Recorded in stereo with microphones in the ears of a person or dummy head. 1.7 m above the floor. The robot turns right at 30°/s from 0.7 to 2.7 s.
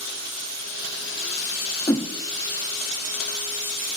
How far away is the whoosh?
About 0.6 m.